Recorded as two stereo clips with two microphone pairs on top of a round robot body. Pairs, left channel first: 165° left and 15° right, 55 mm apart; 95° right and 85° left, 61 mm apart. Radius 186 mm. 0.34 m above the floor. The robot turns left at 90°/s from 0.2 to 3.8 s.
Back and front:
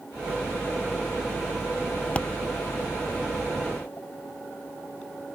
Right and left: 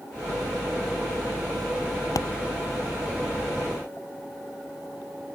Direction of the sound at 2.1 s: 125° right.